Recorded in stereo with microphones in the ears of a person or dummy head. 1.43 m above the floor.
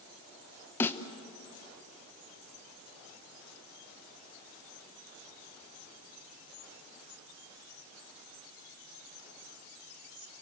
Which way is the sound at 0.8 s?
15° left (ahead or behind).